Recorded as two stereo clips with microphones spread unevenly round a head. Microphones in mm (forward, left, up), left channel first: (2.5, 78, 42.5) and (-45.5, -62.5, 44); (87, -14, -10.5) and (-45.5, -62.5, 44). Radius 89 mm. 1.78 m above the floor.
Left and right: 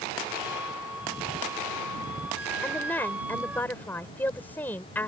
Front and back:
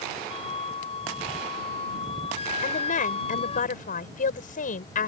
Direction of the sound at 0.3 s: 25° right.